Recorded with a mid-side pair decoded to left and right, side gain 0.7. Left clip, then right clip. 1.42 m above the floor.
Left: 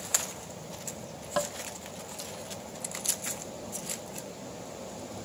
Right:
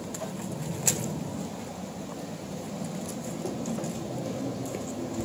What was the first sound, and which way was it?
Tapping, 70° left.